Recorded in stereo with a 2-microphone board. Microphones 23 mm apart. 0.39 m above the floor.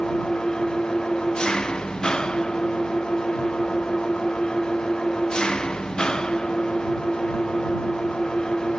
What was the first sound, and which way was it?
An engine running, 35° left (ahead or behind).